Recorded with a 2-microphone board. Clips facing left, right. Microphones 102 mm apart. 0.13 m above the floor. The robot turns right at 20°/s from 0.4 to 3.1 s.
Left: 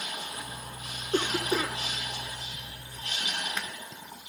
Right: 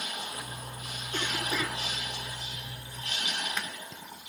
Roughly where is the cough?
Left.